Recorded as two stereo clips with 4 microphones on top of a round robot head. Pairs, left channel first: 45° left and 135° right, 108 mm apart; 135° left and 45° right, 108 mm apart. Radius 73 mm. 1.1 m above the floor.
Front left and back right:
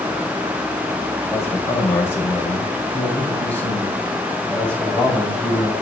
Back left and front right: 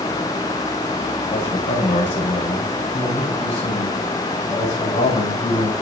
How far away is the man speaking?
About 6.5 m.